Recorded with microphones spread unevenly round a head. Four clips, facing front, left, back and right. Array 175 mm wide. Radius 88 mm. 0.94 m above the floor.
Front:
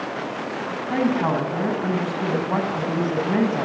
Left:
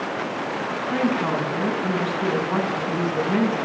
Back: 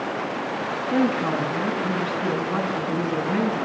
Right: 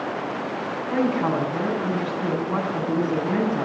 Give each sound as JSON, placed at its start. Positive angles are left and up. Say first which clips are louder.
{"t": 0.9, "sound": "a woman speaking", "louder": "right 1 dB, front 1 dB", "azimuth_deg": -5, "distance_m": 7.5}